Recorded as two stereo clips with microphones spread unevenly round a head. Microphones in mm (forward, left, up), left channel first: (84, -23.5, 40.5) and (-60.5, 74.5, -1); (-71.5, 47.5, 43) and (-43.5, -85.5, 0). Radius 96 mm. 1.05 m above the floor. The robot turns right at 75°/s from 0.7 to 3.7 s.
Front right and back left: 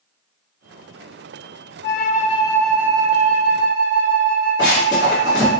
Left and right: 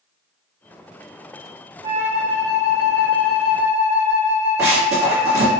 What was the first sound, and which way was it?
A flute, 10° right.